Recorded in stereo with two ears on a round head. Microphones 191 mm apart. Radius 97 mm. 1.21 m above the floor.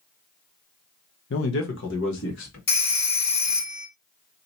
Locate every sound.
1.3 s a man speaking: 55° left (ahead or behind), 0.8 m; by 2.6 s 60° left (ahead or behind), 1.8 m
2.7 s a phone ringing: 45° left (ahead or behind), 1.2 m